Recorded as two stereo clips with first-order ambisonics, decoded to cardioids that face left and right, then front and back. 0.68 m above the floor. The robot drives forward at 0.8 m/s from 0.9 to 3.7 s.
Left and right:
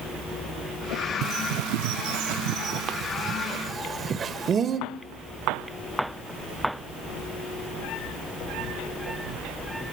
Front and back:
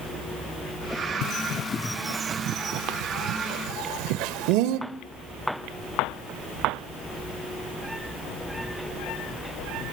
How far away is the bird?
About 0.9 m.